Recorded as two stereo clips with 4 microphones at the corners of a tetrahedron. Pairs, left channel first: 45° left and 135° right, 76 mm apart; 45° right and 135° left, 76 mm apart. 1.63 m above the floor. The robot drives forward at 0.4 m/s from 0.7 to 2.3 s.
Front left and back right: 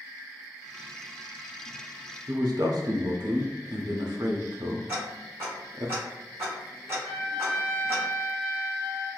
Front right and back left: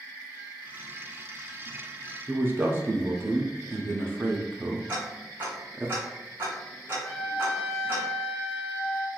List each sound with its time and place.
2.3 s a man speaking: 165° right, 0.5 m
4.9 s ticking: 175° right, 1.9 m
7.0 s a trumpet: 100° right, 1.0 m